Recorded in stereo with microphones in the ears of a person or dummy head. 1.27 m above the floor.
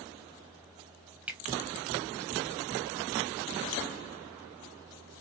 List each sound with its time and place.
1.3 s a finger snap: 10° right (ahead or behind), 0.8 m